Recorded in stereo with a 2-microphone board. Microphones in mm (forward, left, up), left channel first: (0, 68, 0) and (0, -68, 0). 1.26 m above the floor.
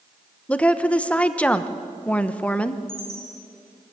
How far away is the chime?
About 9.5 m.